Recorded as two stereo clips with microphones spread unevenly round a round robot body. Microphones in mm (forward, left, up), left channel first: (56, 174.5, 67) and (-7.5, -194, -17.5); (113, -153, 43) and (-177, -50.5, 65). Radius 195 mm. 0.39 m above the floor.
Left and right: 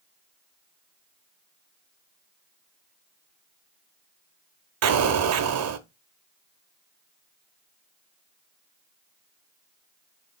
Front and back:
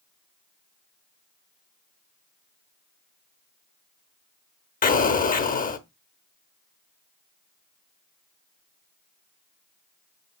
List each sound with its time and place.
4.8 s an explosion: 75° right, 0.7 m